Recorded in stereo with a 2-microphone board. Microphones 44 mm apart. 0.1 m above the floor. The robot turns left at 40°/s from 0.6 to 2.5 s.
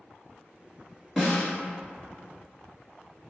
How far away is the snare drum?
About 1.2 m.